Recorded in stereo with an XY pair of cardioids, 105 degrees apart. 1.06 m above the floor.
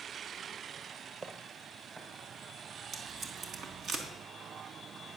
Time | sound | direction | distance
1.2 | footsteps | 40° right | 3.5 m
2.9 | tape being pulled | 60° right | 3.5 m